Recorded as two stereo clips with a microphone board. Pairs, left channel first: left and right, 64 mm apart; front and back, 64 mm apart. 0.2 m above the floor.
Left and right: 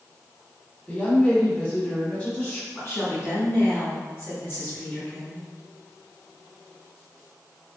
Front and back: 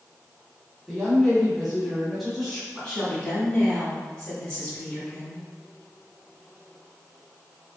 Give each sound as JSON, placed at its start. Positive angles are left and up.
{"t": 0.9, "sound": "a woman speaking", "azimuth_deg": 95, "distance_m": 1.0}
{"t": 2.7, "sound": "a woman speaking", "azimuth_deg": 65, "distance_m": 1.8}